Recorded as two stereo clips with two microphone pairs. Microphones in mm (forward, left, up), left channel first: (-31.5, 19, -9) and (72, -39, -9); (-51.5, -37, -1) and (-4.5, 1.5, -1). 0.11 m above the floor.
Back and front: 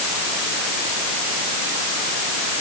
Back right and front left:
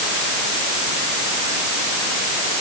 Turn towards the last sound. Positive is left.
No sound to turn to.